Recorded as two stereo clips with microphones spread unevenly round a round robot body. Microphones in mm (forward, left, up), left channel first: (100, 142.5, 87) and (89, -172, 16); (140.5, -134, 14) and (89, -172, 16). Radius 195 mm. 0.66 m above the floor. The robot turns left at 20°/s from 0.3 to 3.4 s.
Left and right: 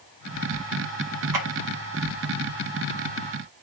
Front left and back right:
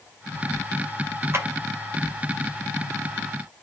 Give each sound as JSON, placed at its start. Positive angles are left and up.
{"t": 1.3, "sound": "a clap", "azimuth_deg": -90, "distance_m": 2.0}